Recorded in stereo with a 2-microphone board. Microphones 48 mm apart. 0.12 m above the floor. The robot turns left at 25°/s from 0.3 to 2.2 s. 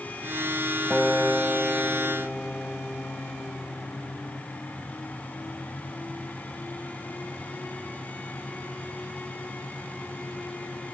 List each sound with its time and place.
0.9 s a guitar: 175° right, 2 m; by 4.5 s 155° left, 2 m